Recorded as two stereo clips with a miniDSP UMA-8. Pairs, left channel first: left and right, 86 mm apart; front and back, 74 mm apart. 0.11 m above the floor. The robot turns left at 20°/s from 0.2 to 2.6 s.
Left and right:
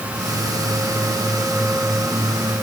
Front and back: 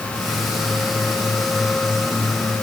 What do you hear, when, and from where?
Only background noise.